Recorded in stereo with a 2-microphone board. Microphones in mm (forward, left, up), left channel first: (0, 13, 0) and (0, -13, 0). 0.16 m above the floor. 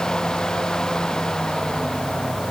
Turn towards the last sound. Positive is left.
No sound to turn to.